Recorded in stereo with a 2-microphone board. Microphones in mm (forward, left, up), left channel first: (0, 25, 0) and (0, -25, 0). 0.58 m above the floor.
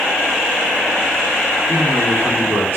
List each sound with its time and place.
1.7 s a man speaking: 50° right (ahead or behind), 1.3 m; by 2.8 s 40° right (ahead or behind), 1.4 m